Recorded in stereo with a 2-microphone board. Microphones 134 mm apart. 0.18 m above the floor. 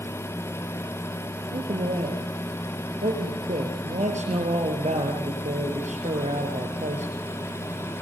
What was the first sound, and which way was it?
A man speaking, 60° right (ahead or behind).